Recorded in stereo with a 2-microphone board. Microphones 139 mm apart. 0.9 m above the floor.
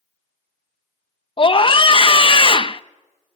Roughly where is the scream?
Left.